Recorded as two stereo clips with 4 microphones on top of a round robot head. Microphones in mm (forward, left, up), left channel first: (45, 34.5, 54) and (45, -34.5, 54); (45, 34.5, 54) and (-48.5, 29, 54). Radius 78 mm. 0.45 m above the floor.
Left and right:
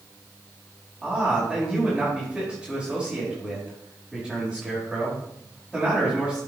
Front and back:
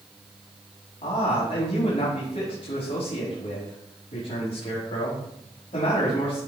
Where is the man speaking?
5° right, 4.5 m.